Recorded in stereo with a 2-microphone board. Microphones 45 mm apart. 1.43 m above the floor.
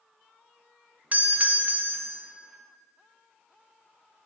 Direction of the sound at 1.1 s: 35° right (ahead or behind).